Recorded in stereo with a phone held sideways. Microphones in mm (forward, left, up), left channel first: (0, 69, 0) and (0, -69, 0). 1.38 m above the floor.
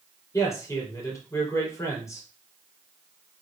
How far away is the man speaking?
About 4 m.